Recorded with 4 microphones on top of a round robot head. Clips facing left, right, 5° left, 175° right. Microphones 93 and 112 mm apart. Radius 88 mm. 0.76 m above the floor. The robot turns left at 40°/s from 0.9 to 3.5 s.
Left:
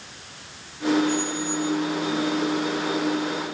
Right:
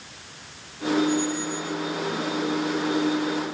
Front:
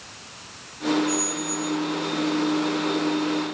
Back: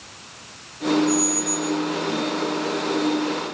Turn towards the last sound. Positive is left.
turn(degrees=50)